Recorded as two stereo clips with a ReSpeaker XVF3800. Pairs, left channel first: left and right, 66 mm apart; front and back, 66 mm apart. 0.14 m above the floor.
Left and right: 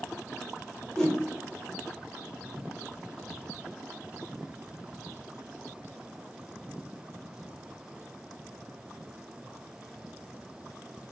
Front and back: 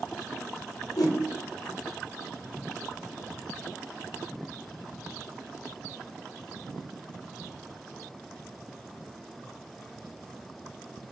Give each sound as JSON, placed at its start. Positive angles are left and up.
{"t": 1.0, "sound": "a whoosh", "azimuth_deg": 5, "distance_m": 0.9}